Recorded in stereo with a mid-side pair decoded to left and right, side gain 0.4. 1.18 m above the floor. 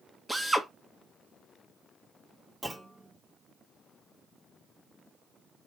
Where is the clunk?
15° right, 1.6 m.